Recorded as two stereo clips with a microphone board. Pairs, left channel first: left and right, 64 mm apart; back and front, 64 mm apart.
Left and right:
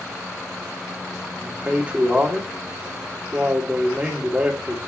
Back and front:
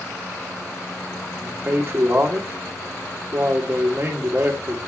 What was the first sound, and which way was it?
A man speaking, 30° right.